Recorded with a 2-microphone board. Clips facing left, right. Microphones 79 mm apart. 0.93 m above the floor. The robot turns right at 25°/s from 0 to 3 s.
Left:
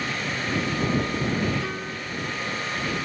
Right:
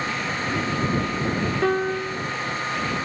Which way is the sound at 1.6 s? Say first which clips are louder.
Right 10 dB; 60° right (ahead or behind).